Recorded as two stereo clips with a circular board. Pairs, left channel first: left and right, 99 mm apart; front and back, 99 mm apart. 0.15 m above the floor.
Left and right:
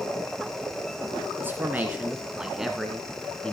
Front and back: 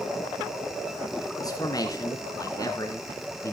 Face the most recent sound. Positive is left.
turn(degrees=20)